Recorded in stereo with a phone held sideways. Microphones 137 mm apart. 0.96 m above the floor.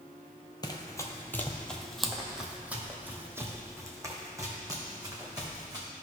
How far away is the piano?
I don't hear a piano.